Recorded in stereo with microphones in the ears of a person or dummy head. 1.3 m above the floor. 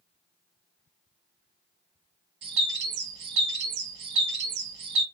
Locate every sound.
2.4 s a bird: 75° right (ahead or behind), 1.5 m